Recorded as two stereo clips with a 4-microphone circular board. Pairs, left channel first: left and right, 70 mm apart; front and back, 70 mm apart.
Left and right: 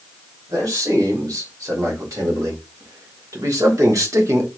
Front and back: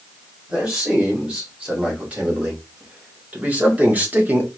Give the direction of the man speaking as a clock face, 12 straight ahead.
4 o'clock.